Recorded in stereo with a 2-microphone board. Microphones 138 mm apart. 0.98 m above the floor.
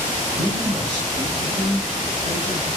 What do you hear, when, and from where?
0.3 s a man speaking: 70° right (ahead or behind), 2.5 m